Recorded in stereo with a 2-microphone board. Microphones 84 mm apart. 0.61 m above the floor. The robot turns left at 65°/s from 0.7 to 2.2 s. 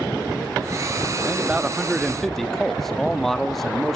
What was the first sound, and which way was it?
A man speaking, 20° right (ahead or behind).